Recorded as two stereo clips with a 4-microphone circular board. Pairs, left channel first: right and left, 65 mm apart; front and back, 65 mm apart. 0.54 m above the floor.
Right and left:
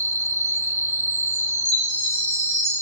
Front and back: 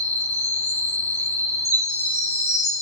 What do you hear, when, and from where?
0.0 s an insect: 55° left, 0.8 m
1.6 s a chime: straight ahead, 3 m